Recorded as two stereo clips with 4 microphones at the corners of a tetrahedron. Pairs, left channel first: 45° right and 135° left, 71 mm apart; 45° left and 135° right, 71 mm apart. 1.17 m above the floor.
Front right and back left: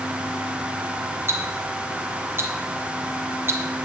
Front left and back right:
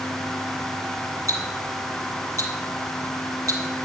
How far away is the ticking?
About 2.5 m.